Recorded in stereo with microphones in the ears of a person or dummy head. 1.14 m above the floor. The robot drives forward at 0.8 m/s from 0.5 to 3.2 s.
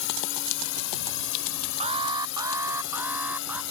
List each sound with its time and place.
0.0 s a drone: 65° left (ahead or behind)
1.8 s an alarm: 35° right (ahead or behind); by 3.6 s 10° right (ahead or behind)